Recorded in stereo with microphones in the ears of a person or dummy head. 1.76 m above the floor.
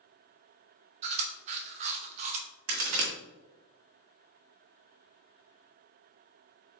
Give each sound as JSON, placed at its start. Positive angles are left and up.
{"t": 1.0, "sound": "chewing", "side_deg": -30, "distance_m": 0.7}
{"t": 2.7, "sound": "a crack", "side_deg": -70, "distance_m": 1.6}